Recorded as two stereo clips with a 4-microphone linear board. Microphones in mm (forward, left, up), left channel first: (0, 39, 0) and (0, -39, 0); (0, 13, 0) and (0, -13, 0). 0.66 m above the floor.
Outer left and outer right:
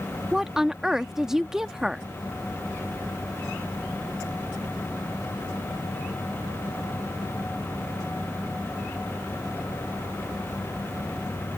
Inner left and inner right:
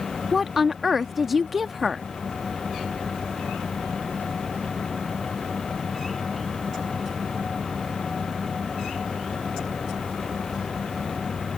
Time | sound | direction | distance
0.3 | a woman speaking | 10° right (ahead or behind) | ?